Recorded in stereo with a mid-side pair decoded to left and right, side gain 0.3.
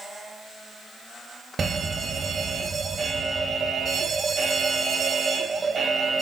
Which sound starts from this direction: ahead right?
A fire alarm, at 1.6 s.